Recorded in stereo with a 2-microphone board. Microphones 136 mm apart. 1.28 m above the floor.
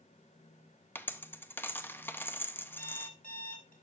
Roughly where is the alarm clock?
Left.